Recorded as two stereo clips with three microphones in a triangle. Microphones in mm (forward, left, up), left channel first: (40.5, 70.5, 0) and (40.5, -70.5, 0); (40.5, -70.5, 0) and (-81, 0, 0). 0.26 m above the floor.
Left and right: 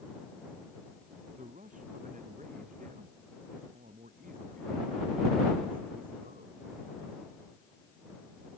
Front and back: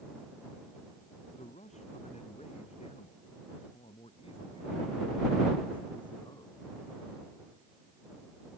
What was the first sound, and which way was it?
A man speaking, 65° right.